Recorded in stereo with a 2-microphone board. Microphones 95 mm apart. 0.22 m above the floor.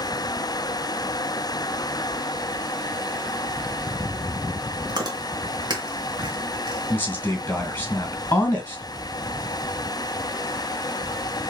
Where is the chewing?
45° right (ahead or behind), 1.9 m.